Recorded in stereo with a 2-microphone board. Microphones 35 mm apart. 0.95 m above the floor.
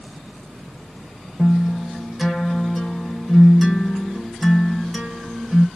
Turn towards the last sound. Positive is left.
turn(degrees=-5)  # may be behind; listen again after turning